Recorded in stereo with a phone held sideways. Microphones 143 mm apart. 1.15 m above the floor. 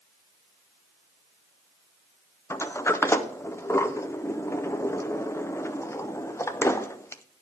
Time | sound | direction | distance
2.5 | a sliding door | 20° left (ahead or behind) | 0.5 m